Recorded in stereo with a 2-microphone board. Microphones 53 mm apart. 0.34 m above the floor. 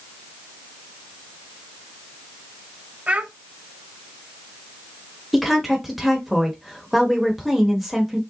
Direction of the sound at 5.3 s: Centre (ahead or behind).